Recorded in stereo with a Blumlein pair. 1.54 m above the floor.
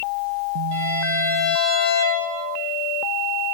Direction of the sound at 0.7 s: 50° right.